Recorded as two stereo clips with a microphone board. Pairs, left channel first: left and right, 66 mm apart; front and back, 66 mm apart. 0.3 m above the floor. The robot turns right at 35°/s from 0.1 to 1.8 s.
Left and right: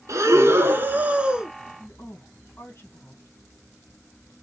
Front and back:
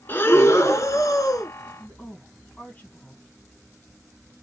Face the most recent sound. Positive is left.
turn(degrees=55)